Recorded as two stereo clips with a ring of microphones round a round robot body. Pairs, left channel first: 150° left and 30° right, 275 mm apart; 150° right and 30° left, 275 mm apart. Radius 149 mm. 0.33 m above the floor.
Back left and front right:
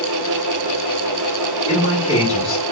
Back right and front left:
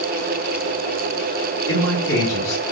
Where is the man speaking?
90° right, 1.6 m.